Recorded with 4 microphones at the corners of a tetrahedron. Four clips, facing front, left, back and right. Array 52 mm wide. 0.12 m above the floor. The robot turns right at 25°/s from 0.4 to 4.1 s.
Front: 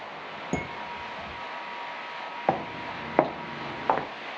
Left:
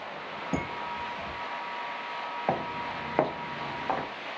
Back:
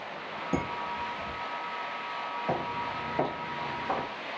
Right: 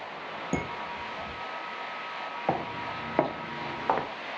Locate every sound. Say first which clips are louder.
0.5 s dishes clattering: left 1 dB, back 1 dB; 35° right, 1.0 m; by 1.3 s 15° right, 1.0 m
2.5 s footsteps: right 1 dB, front 5 dB; 5° left, 1.1 m; by 4.1 s 30° right, 0.7 m